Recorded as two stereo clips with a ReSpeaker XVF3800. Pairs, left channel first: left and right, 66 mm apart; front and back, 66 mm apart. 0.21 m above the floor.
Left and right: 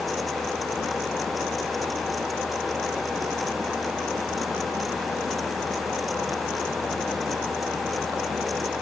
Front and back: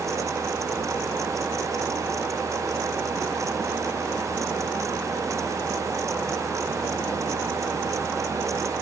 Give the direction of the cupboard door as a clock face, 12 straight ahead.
No cupboard door in this recording.